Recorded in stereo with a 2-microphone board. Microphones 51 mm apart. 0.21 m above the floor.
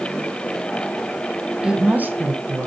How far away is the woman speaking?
About 1.1 m.